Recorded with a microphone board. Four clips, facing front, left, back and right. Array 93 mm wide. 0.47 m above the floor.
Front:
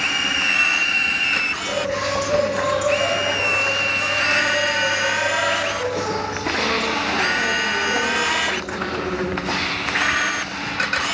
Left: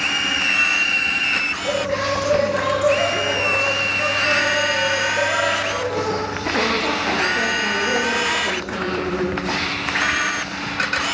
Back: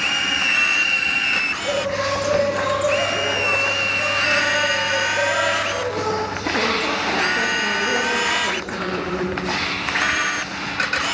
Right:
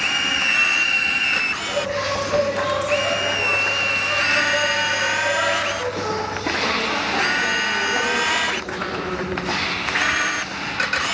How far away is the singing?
About 7.5 m.